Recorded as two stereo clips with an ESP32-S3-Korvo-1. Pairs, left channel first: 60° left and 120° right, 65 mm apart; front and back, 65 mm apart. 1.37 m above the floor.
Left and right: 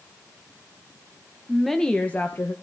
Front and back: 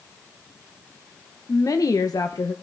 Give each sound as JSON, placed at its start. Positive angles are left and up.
{"t": 1.5, "sound": "a woman speaking", "azimuth_deg": -35, "distance_m": 1.2}